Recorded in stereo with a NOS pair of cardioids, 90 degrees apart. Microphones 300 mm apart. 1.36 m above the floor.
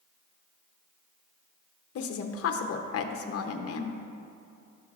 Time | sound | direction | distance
1.9 | a woman speaking | 50° left | 0.8 m